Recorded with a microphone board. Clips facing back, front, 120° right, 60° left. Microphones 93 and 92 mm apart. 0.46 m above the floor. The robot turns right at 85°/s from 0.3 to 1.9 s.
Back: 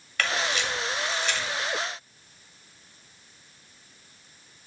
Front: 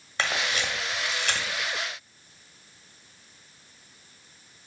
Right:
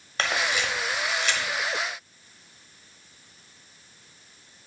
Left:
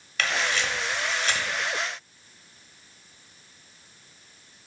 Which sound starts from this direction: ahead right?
A camera shutter, at 0.2 s.